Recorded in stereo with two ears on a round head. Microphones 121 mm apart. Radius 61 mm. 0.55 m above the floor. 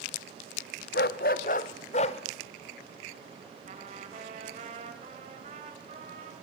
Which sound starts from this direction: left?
A dog barking, at 0.9 s.